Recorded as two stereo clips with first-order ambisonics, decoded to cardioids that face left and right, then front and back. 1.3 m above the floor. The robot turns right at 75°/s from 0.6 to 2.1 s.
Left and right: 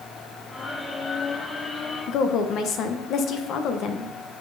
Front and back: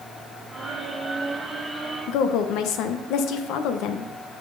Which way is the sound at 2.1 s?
35° left.